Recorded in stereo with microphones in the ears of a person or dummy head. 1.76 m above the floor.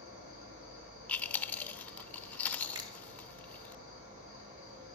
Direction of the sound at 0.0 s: 45° right (ahead or behind).